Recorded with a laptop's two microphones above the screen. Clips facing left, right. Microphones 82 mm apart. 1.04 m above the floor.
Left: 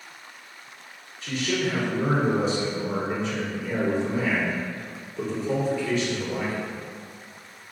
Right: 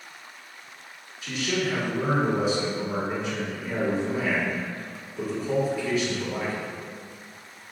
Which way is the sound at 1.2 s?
10° right (ahead or behind).